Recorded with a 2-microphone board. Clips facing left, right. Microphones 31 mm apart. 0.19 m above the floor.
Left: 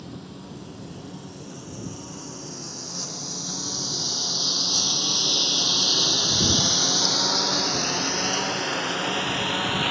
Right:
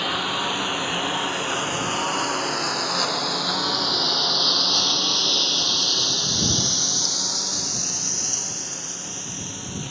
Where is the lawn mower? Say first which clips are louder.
Right 16 dB; 85° right; by 9.9 s 50° left (ahead or behind).